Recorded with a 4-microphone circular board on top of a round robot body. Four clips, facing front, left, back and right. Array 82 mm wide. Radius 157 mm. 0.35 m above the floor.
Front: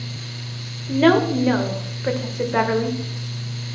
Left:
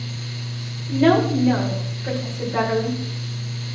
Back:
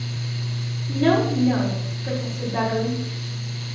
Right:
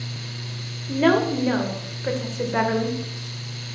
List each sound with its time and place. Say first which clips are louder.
0.9 s a woman speaking: left 2 dB, front 4 dB; 25° right, 1.9 m